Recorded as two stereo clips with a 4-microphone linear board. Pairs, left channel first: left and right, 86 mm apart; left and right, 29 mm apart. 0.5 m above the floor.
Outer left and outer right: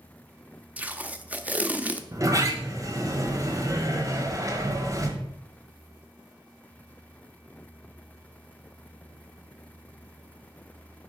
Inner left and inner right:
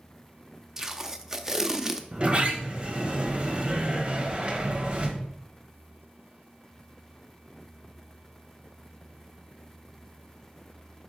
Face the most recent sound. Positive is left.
turn(degrees=-40)  # may be behind; listen again after turning